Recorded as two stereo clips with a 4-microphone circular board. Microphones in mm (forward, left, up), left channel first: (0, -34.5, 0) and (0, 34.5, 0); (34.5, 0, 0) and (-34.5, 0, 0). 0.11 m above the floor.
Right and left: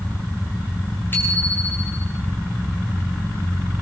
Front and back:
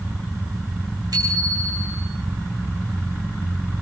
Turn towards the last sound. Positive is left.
turn(degrees=-150)